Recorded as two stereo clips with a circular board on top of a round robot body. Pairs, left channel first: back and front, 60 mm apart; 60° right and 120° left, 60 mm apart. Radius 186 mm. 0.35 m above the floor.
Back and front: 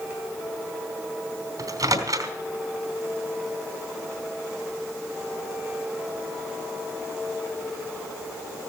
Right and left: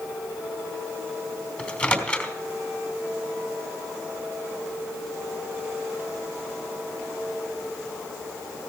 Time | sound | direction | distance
1.6 | a microwave | 5° left | 3 m